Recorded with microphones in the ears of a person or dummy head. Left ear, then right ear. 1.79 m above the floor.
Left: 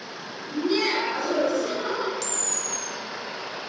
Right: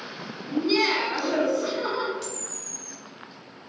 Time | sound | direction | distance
0.5 | laughter | 45° right (ahead or behind) | 1.0 m
2.2 | a camera shutter | 40° left (ahead or behind) | 0.5 m